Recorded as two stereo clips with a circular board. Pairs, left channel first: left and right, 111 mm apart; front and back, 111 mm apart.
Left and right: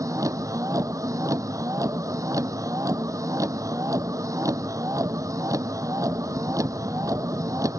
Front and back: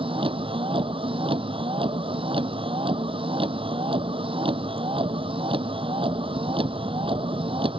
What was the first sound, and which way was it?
A vehicle, 145° right.